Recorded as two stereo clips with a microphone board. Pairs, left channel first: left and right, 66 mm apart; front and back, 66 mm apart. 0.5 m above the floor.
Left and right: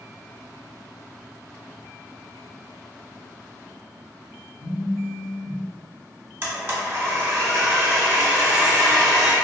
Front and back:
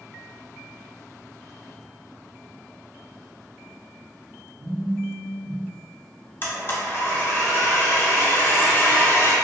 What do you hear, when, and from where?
4.6 s a phone buzzing: 130° left, 0.6 m
6.4 s a blender: 45° right, 0.7 m